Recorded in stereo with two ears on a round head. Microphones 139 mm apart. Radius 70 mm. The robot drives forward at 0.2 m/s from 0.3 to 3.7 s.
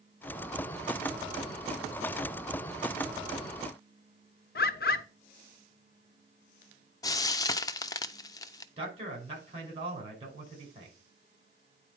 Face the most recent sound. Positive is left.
turn(degrees=-40)  # may be behind; listen again after turning